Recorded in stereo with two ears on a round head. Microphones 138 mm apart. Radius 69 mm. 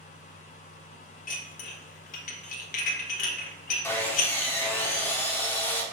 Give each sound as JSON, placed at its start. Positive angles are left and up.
{"t": 1.3, "sound": "dishes clattering", "side_deg": 55, "distance_m": 0.7}
{"t": 3.8, "sound": "sawing", "side_deg": 15, "distance_m": 0.7}